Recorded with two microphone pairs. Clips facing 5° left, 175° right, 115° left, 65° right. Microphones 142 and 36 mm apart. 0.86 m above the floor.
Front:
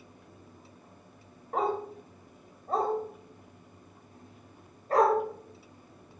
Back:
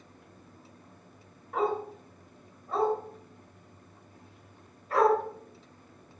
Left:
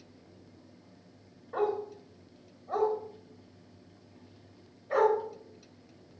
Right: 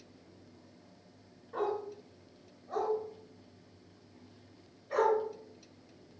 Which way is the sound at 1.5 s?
55° left.